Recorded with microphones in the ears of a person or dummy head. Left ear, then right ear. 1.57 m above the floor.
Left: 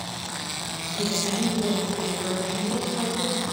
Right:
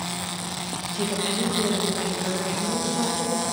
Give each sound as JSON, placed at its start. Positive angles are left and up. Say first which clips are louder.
{"t": 0.9, "sound": "a woman speaking", "louder": "even", "side_deg": -50, "distance_m": 1.0}